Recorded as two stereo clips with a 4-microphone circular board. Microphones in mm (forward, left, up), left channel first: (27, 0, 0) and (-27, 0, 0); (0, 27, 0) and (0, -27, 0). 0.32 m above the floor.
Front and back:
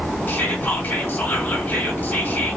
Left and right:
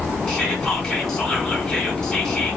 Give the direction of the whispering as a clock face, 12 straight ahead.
11 o'clock.